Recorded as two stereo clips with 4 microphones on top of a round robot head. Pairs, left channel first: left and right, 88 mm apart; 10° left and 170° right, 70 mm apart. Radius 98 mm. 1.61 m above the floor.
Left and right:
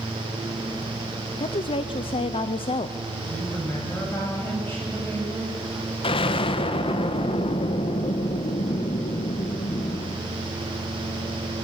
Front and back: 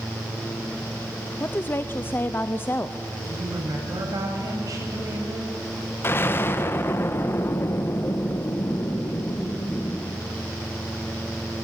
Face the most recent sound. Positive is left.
turn(degrees=70)